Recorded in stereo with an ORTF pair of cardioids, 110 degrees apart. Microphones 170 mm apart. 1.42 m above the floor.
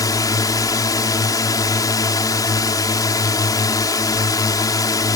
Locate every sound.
0.0 s a drone: 20° left